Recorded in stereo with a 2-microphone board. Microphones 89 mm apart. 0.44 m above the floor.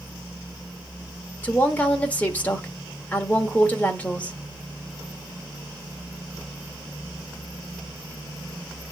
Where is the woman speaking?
15° left (ahead or behind), 1.2 m.